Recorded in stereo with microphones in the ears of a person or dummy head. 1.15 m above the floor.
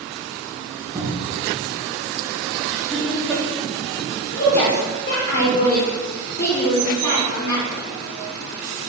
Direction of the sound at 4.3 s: 45° left (ahead or behind).